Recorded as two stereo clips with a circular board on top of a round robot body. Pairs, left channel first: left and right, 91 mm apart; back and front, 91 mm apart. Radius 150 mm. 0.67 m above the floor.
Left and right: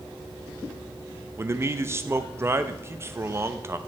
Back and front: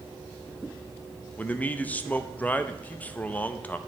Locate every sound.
1.4 s a man speaking: 120° right, 0.8 m